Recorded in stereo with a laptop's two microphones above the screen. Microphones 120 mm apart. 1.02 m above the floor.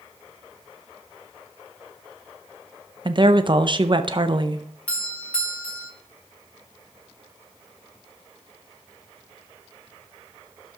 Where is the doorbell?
10° left (ahead or behind), 1.4 m.